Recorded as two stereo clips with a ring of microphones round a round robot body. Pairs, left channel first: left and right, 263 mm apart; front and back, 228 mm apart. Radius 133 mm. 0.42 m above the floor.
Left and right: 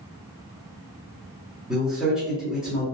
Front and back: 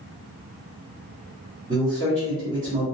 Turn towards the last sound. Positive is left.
turn(degrees=-175)